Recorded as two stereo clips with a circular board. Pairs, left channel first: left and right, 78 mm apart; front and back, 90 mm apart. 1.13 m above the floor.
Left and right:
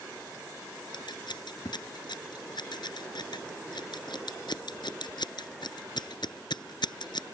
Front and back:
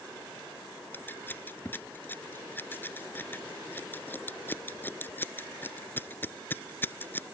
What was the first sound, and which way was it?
Scissors, 70° left.